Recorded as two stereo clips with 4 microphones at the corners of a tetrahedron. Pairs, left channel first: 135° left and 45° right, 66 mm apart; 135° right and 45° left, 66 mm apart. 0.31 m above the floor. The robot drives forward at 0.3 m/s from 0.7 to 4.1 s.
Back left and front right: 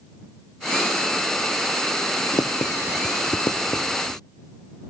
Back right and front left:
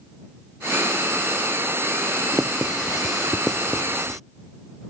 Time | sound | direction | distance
2.3 | writing | 125° left | ?